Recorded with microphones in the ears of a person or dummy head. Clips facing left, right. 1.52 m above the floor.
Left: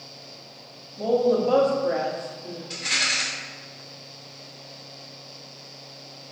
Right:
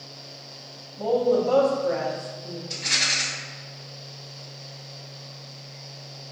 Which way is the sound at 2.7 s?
5° left (ahead or behind).